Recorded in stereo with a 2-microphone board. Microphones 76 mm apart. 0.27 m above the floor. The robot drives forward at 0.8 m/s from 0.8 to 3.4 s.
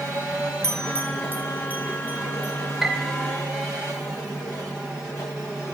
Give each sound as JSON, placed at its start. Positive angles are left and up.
{"t": 0.6, "sound": "a bell", "side_deg": -40, "distance_m": 1.0}
{"t": 2.8, "sound": "a piano", "side_deg": -10, "distance_m": 1.1}